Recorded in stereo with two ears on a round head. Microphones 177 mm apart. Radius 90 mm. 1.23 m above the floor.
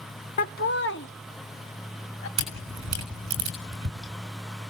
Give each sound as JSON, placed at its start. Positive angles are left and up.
{"t": 0.4, "sound": "laughter", "side_deg": 40, "distance_m": 0.6}
{"t": 2.4, "sound": "a camera shutter", "side_deg": -80, "distance_m": 6.5}